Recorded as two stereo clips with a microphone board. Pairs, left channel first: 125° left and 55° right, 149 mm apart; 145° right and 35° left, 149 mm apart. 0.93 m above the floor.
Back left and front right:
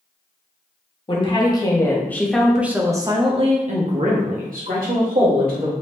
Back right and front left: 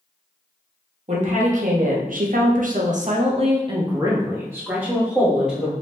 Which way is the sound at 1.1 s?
70° left.